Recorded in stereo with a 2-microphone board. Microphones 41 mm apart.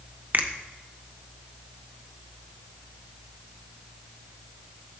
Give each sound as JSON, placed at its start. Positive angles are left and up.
{"t": 0.3, "sound": "a finger snap", "side_deg": -40, "distance_m": 0.7}